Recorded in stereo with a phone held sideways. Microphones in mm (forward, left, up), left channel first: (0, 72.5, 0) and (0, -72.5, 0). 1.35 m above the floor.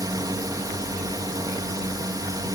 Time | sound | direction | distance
0.0 | a drone | 25° right (ahead or behind) | ?